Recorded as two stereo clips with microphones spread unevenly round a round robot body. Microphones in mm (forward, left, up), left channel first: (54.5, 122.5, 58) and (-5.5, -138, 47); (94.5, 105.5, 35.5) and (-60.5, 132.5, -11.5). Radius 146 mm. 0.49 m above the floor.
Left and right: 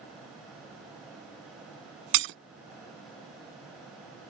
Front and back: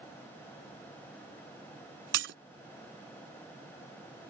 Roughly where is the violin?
No violin in this recording.